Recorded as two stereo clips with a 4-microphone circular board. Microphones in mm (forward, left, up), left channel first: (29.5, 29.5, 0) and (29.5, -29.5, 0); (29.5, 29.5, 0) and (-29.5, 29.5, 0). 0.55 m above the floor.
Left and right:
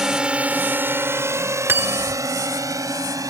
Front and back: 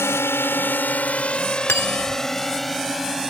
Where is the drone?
10° right; by 3.3 s 95° right.